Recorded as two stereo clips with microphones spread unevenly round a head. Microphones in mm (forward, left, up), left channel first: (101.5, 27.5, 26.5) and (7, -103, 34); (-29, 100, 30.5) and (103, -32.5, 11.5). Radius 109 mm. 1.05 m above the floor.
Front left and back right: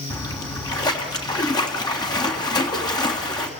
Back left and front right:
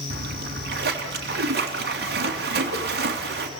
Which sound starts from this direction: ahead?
A splash, at 0.1 s.